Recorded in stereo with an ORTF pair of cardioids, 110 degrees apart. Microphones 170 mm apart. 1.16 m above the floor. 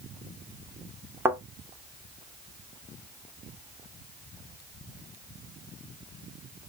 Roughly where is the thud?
Ahead.